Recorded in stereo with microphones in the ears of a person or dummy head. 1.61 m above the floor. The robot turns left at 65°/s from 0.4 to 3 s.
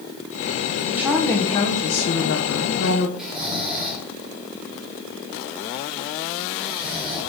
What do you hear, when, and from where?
0.9 s a woman speaking: 165° right, 1.5 m; by 3.1 s 55° left, 1.5 m
3.2 s snoring: 5° right (ahead or behind), 3.5 m